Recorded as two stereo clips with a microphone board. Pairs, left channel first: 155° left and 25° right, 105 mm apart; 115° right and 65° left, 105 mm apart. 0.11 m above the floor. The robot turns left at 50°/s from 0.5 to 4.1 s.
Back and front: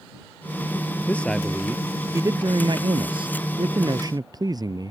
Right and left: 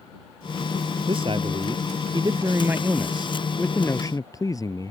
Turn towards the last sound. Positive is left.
turn(degrees=-65)